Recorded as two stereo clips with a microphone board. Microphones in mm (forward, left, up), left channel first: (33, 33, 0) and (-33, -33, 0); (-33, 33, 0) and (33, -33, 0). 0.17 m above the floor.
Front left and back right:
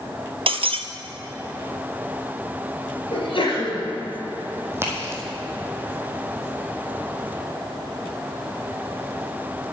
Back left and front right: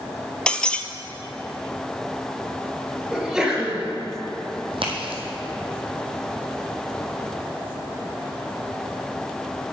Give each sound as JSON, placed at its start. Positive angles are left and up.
{"t": 0.5, "sound": "breaking glass", "azimuth_deg": -145, "distance_m": 0.7}
{"t": 3.1, "sound": "a sneeze", "azimuth_deg": 35, "distance_m": 3.5}
{"t": 4.7, "sound": "a crack", "azimuth_deg": -70, "distance_m": 2.5}